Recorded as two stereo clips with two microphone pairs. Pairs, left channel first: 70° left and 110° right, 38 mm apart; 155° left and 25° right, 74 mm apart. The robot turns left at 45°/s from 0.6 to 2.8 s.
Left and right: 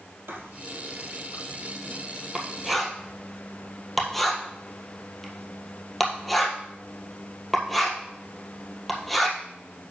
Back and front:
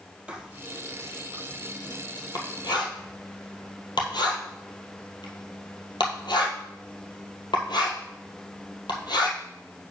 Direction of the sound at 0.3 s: 100° right.